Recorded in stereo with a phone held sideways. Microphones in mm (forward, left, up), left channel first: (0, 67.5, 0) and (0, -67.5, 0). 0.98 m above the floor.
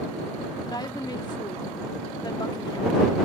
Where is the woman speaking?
35° left (ahead or behind).